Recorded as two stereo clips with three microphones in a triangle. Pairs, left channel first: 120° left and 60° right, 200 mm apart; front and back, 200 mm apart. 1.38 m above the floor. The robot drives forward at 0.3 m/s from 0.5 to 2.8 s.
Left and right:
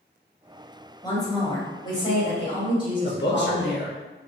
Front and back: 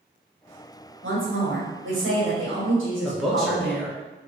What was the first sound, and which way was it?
A woman speaking, 170° right.